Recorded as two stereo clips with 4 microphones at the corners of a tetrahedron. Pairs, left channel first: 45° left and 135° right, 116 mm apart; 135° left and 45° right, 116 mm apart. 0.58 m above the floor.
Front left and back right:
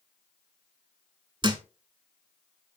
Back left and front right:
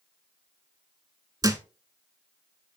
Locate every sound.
1.4 s a thud: 100° right, 0.7 m